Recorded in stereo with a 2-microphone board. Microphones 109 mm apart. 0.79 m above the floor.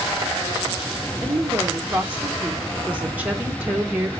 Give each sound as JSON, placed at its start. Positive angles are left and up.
{"t": 1.2, "sound": "a woman speaking", "side_deg": -15, "distance_m": 0.9}